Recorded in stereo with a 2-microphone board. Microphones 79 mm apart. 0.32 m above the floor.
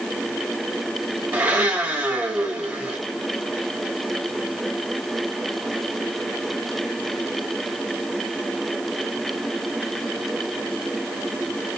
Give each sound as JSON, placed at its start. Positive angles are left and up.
{"t": 1.3, "sound": "a blender", "side_deg": -25, "distance_m": 0.9}